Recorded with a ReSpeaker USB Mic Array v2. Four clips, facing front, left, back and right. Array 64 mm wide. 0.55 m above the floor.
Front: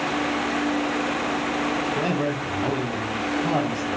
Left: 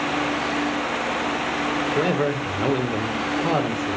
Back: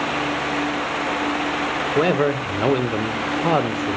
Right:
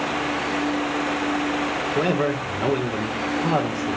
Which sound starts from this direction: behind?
A man speaking, at 1.9 s.